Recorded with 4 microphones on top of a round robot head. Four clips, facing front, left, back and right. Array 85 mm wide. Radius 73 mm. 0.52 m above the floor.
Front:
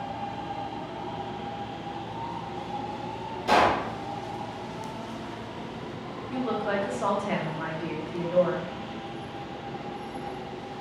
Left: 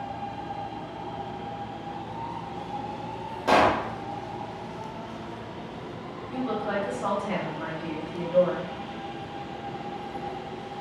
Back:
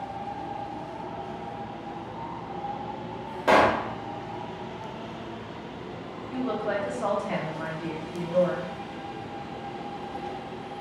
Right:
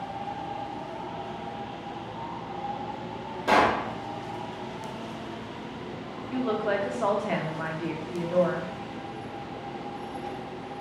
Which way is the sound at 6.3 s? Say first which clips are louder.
Right 2 dB, even; 65° right.